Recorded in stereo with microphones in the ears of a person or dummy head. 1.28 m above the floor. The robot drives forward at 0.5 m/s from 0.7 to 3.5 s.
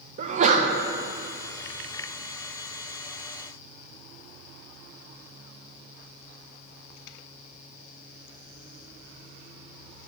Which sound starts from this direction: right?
A sneeze, at 0.2 s.